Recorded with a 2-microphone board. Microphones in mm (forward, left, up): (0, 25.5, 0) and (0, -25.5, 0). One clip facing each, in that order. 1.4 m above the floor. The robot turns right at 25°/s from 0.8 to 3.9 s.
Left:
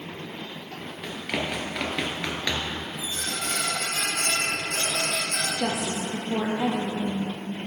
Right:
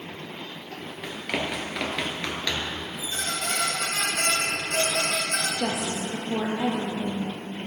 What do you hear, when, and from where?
1.0 s running footsteps: 10° right (ahead or behind), 1.6 m; by 2.8 s 20° left (ahead or behind), 1.5 m
3.0 s a squeak: 75° right (ahead or behind), 3 m
5.6 s a woman speaking: 15° left (ahead or behind), 0.6 m